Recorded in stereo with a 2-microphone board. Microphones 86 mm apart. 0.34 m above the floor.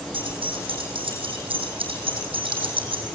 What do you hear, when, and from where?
0.1 s keys jangling: 80° right, 10 m; by 3.0 s 85° right, 8.5 m